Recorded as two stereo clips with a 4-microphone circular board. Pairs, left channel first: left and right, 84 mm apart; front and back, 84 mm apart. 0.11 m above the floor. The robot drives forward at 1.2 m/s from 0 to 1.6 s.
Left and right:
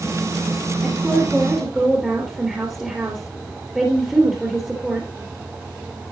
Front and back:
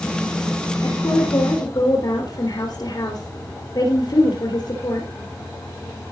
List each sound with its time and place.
0.8 s a woman speaking: 5° right, 3.5 m; by 5.1 s 10° right, 2.5 m